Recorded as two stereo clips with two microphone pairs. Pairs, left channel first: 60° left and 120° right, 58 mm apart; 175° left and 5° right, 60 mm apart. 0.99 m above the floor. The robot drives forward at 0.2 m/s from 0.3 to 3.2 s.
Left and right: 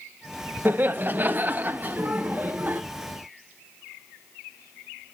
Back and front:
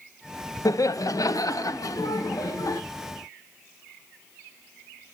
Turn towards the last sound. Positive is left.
turn(degrees=-175)